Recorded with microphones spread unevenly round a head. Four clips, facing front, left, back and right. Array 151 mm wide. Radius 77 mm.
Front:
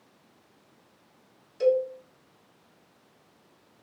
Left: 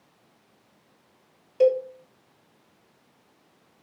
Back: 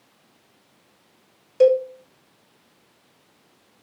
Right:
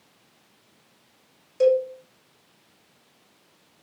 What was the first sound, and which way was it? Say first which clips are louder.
A cowbell: right 1 dB, back 7 dB; 165° left.